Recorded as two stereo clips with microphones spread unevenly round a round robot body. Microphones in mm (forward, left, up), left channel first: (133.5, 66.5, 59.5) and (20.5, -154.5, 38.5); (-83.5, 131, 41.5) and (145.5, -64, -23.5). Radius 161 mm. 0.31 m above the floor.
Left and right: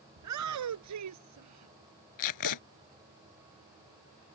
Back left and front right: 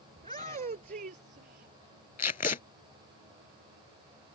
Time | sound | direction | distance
0.2 | a shout | 115° right | ?
2.2 | tape being pulled | 70° left | ?